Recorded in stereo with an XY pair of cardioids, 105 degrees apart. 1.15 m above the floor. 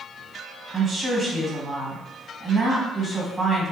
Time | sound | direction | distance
0.7 | a woman speaking | 30° right | 1.5 m